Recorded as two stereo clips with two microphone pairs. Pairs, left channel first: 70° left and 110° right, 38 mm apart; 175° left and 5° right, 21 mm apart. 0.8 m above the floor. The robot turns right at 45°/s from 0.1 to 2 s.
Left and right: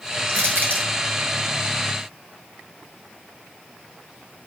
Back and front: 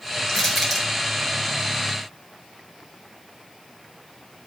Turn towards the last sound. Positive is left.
turn(degrees=-45)